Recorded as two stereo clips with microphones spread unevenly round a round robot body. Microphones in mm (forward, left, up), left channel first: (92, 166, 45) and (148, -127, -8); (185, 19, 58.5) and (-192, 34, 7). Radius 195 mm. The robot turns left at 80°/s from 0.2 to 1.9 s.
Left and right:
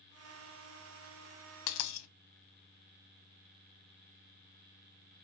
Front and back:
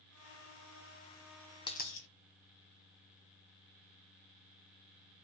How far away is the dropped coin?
About 0.6 m.